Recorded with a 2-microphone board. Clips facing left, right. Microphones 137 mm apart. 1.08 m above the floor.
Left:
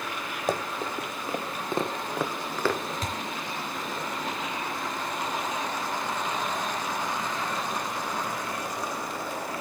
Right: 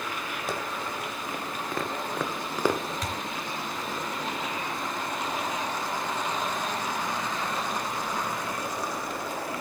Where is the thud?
30° left (ahead or behind), 3.5 m.